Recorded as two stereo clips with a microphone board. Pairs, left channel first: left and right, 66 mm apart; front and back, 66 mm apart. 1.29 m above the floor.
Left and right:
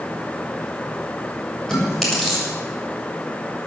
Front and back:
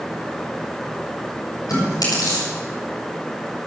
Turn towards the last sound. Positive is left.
turn(degrees=5)